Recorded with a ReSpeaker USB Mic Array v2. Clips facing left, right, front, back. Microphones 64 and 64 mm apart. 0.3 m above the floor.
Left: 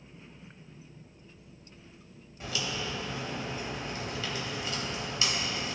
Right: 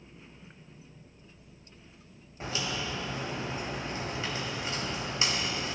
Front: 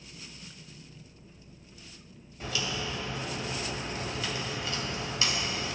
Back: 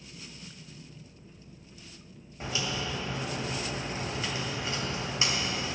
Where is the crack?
130° right, 1.7 m.